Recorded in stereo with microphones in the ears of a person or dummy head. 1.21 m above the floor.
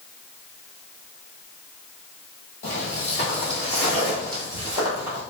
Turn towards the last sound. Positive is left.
turn(degrees=-20)  # may be behind; listen again after turning